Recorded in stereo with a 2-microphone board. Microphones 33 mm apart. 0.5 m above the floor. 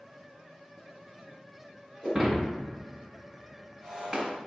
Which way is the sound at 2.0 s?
20° right (ahead or behind).